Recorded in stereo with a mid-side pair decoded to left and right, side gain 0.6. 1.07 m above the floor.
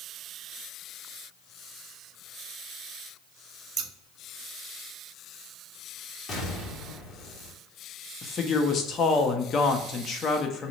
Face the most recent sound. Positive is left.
turn(degrees=40)